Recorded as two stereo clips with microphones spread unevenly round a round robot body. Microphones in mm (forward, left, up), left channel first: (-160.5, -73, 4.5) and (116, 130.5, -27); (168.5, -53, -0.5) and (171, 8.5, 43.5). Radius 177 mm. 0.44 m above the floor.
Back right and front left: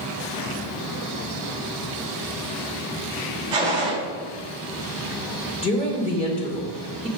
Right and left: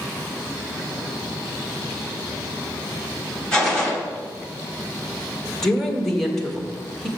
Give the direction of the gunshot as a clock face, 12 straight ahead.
1 o'clock.